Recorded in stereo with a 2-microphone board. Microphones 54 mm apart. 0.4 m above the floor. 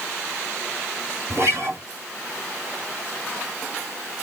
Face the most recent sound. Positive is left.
turn(degrees=-55)  # may be behind; listen again after turning